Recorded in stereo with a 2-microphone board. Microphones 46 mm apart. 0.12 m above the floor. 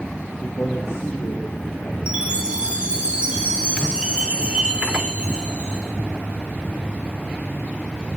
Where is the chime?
20° right (ahead or behind), 4 m.